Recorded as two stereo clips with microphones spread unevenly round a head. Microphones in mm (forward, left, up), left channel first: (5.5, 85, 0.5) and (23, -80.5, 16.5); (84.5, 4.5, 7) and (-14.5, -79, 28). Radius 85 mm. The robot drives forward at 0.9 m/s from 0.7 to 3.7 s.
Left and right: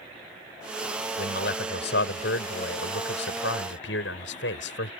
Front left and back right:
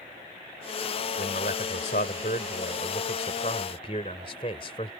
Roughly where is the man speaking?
Left.